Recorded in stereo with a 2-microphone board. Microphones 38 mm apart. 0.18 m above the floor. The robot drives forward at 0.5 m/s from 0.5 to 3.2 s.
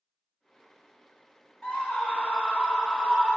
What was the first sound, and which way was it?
A scream, 25° left (ahead or behind).